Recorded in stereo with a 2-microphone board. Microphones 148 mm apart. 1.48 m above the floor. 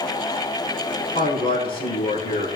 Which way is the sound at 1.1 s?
85° left.